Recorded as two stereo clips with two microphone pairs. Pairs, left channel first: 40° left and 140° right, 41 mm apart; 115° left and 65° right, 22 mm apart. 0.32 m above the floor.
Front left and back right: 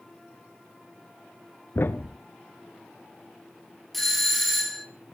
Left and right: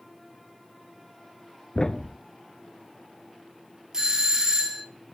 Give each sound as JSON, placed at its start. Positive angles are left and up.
{"t": 1.8, "sound": "a thud", "azimuth_deg": 55, "distance_m": 0.6}
{"t": 3.9, "sound": "a doorbell", "azimuth_deg": -50, "distance_m": 1.4}